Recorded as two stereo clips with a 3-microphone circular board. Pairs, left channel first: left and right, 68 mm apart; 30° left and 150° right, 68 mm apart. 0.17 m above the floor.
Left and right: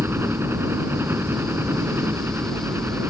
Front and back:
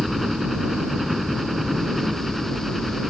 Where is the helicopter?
65° right.